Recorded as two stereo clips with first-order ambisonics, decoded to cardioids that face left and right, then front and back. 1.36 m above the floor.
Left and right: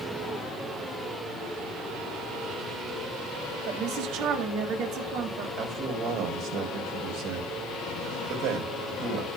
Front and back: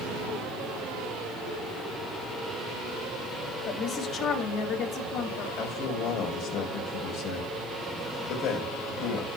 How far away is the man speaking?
About 4.5 m.